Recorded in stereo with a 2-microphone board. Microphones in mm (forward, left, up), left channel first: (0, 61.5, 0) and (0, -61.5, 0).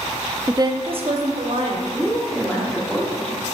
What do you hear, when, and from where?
0.5 s a woman speaking: 20° right (ahead or behind), 0.5 m; by 1.8 s 60° right (ahead or behind), 2 m
1.9 s a woman speaking: 10° left (ahead or behind), 1.7 m